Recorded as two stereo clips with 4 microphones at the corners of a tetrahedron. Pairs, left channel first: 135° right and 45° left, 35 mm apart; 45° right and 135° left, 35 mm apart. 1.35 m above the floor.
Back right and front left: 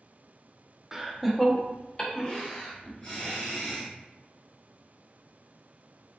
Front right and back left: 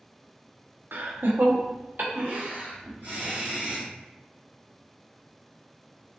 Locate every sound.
0.9 s laughter: 125° left, 0.7 m; by 3.9 s 175° left, 2 m